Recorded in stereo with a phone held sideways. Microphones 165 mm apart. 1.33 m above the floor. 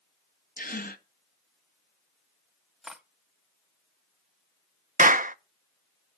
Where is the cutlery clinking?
Centre (ahead or behind), 1.0 m.